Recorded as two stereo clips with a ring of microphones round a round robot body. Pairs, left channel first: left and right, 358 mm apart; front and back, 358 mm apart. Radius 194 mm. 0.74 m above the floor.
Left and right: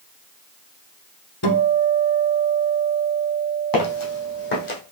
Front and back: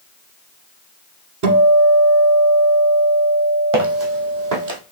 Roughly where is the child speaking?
I don't hear a child speaking.